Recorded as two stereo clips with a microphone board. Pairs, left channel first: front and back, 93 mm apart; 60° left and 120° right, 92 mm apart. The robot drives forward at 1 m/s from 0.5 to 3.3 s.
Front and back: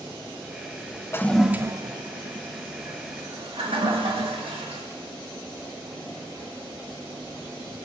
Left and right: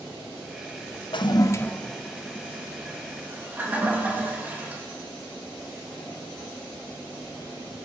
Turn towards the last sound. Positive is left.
turn(degrees=170)